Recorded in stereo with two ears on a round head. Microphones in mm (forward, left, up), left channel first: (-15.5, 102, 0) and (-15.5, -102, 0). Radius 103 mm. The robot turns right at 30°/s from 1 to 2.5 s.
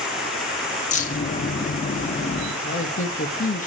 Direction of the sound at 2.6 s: 35° left (ahead or behind).